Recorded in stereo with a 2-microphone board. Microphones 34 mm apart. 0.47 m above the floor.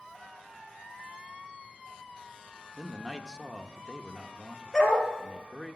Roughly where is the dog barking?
Centre.